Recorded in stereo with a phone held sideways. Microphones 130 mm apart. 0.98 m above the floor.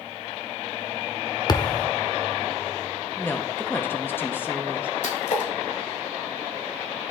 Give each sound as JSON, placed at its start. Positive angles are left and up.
{"t": 1.5, "sound": "a thud", "side_deg": 30, "distance_m": 0.6}
{"t": 3.2, "sound": "a woman speaking", "side_deg": 15, "distance_m": 0.9}
{"t": 5.0, "sound": "a splash", "side_deg": 70, "distance_m": 2.5}